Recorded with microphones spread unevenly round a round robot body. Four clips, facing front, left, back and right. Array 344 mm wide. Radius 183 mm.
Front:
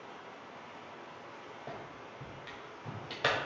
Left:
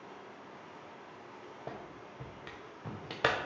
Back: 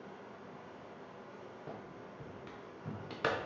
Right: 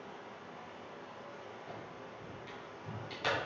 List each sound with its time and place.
0.0 s running water: 155° right, 2.0 m
1.7 s a clap: 105° left, 1.2 m